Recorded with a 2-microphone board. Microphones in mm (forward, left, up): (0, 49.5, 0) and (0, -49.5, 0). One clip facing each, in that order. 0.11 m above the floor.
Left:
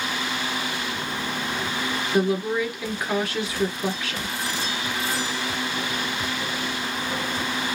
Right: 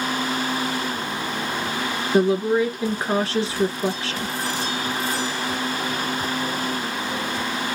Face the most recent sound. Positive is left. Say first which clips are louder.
# right 5 dB
turn(degrees=-35)  # may be behind; listen again after turning